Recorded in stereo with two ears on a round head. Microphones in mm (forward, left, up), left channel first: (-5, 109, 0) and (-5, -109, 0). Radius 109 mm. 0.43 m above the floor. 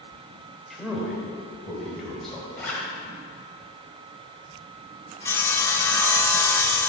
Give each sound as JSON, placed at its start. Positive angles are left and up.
{"t": 0.7, "sound": "a man speaking", "side_deg": 0, "distance_m": 2.0}
{"t": 2.6, "sound": "a zipper", "side_deg": 5, "distance_m": 2.0}
{"t": 5.2, "sound": "sawing", "side_deg": 10, "distance_m": 0.6}